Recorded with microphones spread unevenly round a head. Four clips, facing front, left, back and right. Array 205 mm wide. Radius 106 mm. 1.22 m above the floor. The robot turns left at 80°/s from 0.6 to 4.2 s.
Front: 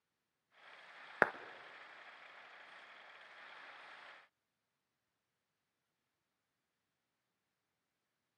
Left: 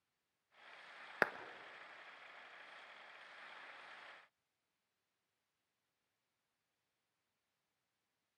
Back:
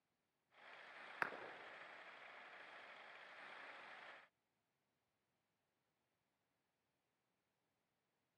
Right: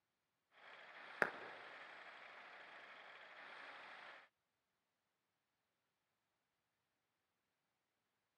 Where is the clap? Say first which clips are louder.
Left 4 dB, front 13 dB; 15° left, 1.0 m; by 1.3 s 5° left, 1.0 m.